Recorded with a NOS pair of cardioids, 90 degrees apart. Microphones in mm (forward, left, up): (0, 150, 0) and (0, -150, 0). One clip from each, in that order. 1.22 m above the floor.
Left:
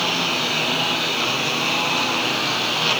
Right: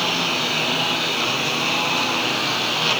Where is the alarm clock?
I don't hear an alarm clock.